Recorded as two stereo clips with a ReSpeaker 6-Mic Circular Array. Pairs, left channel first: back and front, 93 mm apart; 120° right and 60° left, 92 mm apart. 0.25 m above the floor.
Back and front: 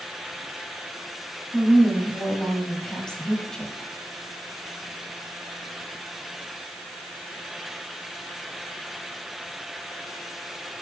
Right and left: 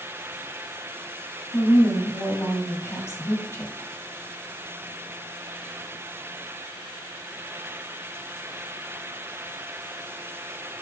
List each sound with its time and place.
1.5 s a woman speaking: 105° right, 1.5 m